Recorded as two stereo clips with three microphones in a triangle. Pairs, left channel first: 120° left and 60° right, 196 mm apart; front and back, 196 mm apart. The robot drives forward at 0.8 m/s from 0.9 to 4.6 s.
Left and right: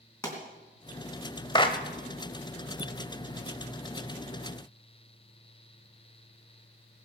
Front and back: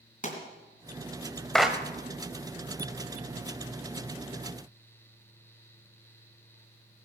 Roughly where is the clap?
Left.